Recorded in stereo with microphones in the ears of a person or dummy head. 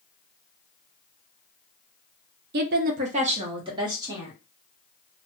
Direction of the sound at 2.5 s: 55° right (ahead or behind).